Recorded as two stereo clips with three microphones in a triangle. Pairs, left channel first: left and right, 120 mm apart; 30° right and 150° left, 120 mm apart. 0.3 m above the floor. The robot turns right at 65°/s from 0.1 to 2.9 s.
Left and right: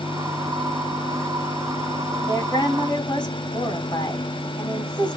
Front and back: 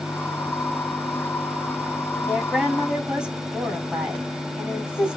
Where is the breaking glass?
No breaking glass in this recording.